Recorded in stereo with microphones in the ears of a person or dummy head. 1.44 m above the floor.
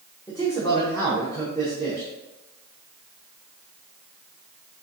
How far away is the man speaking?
About 1.0 m.